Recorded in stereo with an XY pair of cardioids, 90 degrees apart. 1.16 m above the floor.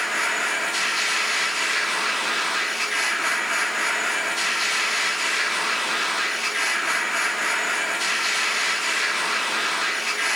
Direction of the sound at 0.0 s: 5° left.